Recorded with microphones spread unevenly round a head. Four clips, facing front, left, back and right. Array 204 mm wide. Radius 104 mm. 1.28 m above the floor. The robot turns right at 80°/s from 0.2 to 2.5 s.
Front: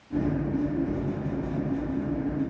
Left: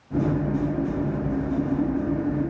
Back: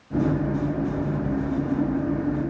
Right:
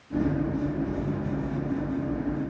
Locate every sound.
Only background noise.